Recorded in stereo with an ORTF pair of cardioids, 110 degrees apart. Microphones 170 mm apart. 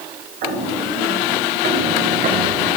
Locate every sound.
0.4 s footsteps: 65° right, 8.5 m; by 2.8 s 55° right, 8 m